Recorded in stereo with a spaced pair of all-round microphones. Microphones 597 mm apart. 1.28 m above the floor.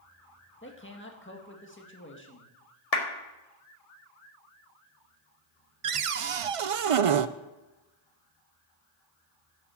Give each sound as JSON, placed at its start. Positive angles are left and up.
{"t": 0.6, "sound": "a man speaking", "side_deg": 20, "distance_m": 1.8}
{"t": 2.9, "sound": "a clap", "side_deg": 75, "distance_m": 1.7}
{"t": 5.8, "sound": "a cupboard door", "side_deg": -60, "distance_m": 0.6}